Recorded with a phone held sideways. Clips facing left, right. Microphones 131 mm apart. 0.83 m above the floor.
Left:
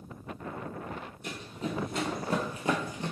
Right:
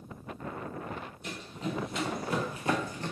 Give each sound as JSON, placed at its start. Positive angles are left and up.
{"t": 1.2, "sound": "running footsteps", "side_deg": 55, "distance_m": 1.5}